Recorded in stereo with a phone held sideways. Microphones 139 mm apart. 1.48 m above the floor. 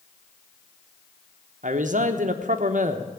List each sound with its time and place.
1.6 s a man speaking: 65° right (ahead or behind), 1.0 m